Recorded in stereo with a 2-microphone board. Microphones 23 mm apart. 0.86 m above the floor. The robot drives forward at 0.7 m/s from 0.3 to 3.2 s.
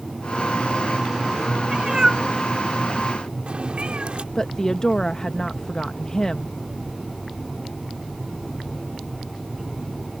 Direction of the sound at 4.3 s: 30° left (ahead or behind).